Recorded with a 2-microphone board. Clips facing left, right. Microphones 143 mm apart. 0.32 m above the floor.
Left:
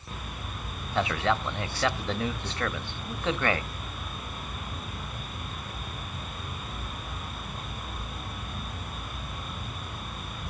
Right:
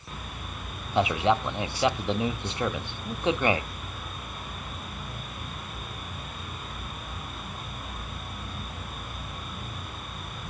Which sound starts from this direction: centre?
A man speaking, at 0.9 s.